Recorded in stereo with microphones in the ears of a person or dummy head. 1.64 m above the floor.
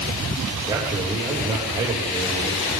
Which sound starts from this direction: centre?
A man speaking, at 0.7 s.